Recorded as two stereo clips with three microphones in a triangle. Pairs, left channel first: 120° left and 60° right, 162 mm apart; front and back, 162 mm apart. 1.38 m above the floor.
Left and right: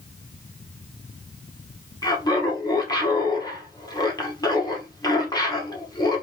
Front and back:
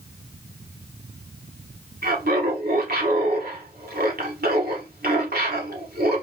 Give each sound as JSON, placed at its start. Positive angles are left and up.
{"t": 2.0, "sound": "laughter", "azimuth_deg": -175, "distance_m": 1.5}